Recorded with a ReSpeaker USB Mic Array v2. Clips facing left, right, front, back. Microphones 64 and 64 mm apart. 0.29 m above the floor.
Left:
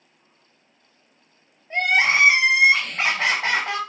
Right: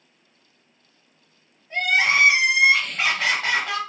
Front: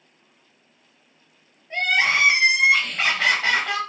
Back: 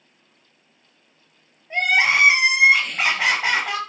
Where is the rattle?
I don't hear a rattle.